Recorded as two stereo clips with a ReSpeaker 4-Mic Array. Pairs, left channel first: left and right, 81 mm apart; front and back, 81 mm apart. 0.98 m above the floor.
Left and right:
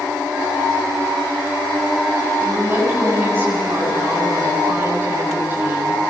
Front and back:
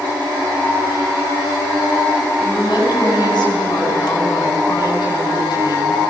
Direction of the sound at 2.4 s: 30° right.